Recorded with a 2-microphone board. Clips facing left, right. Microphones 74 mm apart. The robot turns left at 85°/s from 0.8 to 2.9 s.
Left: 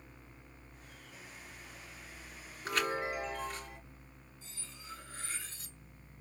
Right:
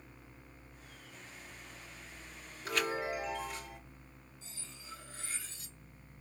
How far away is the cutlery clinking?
About 1.4 m.